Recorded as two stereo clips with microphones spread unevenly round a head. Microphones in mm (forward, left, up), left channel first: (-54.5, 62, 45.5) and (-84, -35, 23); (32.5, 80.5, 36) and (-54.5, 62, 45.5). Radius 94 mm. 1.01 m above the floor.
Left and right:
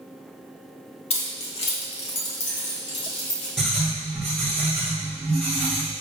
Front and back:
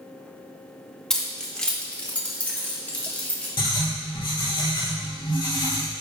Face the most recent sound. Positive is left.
turn(degrees=-20)